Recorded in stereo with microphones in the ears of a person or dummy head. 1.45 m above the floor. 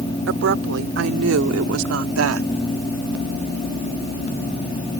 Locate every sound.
0.3 s a woman speaking: 70° right (ahead or behind); by 2.5 s 85° right